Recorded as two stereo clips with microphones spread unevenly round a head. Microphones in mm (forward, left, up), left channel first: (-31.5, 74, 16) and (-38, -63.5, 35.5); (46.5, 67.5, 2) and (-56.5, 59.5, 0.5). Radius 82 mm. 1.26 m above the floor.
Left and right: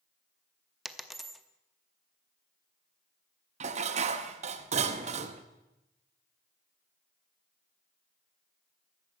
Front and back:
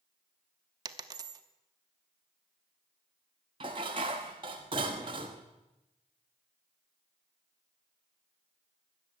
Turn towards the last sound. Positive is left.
turn(degrees=-120)